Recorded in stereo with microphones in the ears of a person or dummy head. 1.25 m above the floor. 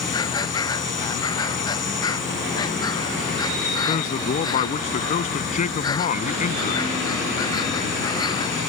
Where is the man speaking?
40° left (ahead or behind).